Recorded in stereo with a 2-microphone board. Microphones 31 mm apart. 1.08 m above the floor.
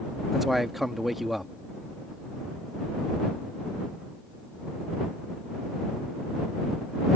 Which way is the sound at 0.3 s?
5° right (ahead or behind).